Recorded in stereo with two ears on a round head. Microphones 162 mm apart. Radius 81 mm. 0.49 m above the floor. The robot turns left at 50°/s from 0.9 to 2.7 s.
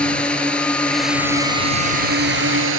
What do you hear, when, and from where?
0.0 s a drone: 5° left; by 2.8 s 85° right